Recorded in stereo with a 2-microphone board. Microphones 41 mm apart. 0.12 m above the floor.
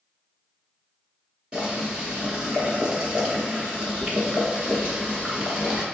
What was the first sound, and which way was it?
Boiling, 25° right (ahead or behind).